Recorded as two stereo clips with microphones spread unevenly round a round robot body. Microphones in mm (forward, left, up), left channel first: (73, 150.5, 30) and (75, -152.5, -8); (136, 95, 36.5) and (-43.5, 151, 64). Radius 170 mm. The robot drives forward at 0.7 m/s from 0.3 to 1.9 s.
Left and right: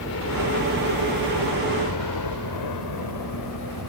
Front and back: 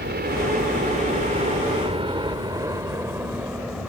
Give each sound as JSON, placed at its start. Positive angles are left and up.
{"t": 0.0, "sound": "a helicopter", "azimuth_deg": 140}